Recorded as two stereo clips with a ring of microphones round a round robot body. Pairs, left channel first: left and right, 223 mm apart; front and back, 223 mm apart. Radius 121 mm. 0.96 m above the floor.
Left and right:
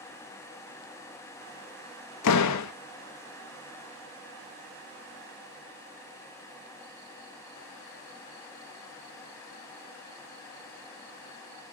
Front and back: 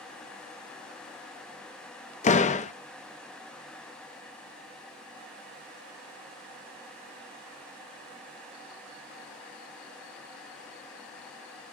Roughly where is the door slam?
Ahead left.